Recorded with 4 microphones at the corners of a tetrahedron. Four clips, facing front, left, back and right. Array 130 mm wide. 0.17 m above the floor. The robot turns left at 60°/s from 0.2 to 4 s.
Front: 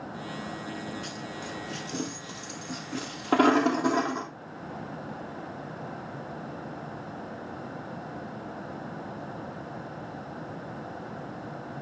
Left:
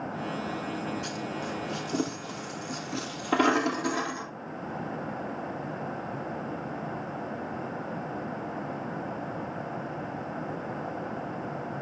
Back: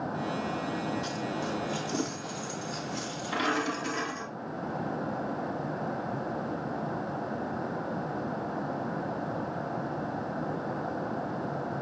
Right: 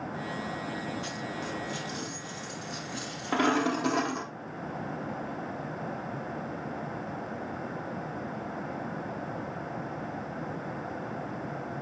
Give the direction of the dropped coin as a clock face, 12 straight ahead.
7 o'clock.